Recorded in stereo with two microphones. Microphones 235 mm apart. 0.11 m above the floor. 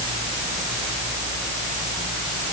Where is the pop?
No pop in this recording.